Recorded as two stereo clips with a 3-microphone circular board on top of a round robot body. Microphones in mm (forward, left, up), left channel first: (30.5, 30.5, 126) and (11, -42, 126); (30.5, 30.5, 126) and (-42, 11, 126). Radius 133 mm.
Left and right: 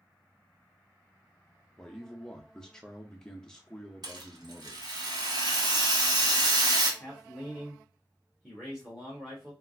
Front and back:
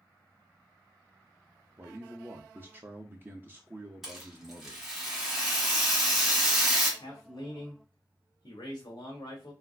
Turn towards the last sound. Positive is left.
turn(degrees=-20)